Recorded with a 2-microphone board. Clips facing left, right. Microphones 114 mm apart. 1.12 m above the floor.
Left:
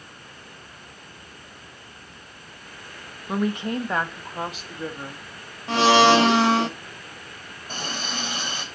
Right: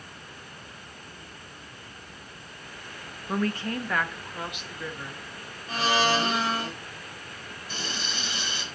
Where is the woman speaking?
10° left (ahead or behind), 1.1 m; by 6.7 s 50° left (ahead or behind), 2.5 m.